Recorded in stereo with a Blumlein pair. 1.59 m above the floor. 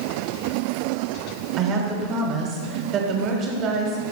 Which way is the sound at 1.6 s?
30° right.